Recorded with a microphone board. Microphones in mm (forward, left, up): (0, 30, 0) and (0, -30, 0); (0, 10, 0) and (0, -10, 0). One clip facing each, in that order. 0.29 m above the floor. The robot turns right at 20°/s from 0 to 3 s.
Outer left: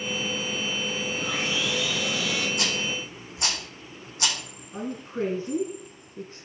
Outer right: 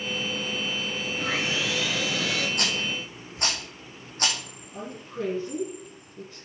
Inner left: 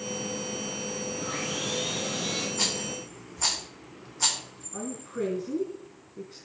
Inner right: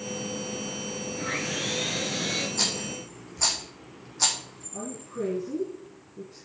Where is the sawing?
80° right, 3 m; by 2.5 s 65° right (ahead or behind), 3 m.